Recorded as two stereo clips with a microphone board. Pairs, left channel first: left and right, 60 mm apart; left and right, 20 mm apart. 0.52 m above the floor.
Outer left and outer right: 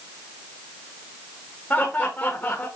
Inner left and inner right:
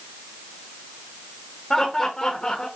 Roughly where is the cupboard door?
No cupboard door in this recording.